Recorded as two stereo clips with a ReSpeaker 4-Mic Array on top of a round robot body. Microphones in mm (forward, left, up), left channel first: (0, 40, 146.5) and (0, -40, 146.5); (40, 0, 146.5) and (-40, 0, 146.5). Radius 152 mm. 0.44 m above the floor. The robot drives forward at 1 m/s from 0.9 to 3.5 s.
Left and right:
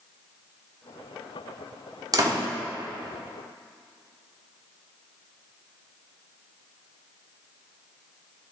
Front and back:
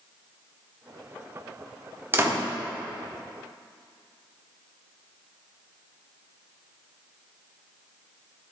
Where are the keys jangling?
No keys jangling in this recording.